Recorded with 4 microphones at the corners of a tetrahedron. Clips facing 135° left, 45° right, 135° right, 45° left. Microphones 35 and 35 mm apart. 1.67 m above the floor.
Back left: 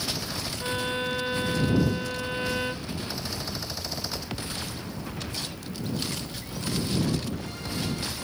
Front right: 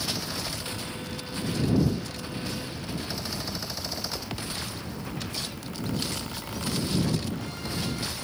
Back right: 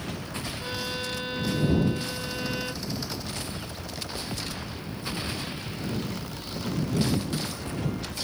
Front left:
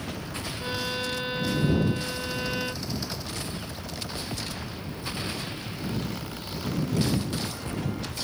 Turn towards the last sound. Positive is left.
turn(degrees=125)